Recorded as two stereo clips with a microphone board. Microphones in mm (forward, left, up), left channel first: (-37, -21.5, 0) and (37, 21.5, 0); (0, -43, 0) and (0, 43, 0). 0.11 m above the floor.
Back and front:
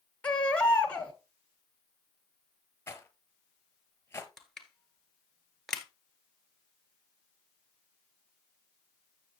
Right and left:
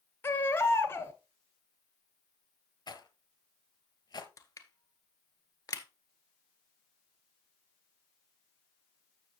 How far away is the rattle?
About 1.0 m.